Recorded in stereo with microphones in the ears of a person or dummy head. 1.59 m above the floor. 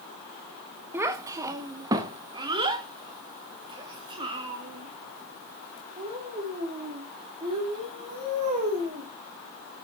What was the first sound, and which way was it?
A child speaking, 15° right (ahead or behind).